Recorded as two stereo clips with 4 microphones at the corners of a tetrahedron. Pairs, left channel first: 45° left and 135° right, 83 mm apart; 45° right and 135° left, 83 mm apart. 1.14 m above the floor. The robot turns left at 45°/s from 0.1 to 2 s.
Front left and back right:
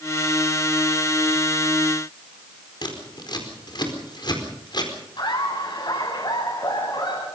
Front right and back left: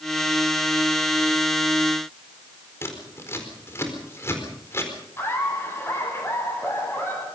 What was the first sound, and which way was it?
Scissors, 15° left.